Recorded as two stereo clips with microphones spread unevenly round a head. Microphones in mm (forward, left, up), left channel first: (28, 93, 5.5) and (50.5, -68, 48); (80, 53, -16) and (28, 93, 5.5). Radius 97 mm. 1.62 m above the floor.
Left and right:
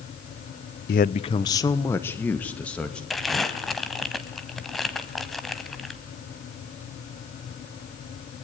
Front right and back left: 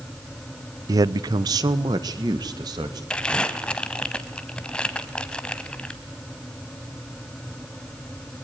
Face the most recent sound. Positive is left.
turn(degrees=-135)